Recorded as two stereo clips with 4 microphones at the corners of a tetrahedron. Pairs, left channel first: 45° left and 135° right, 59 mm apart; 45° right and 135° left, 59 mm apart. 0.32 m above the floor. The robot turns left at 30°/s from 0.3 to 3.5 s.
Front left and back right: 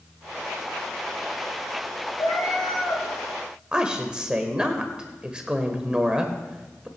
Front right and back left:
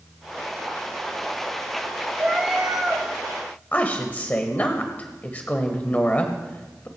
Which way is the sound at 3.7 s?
75° right.